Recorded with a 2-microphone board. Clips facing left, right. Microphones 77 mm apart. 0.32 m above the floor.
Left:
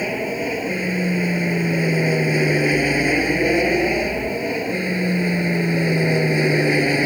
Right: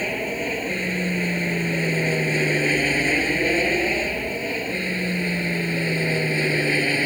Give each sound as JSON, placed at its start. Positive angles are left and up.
{"t": 0.0, "sound": "an aircraft", "side_deg": 10}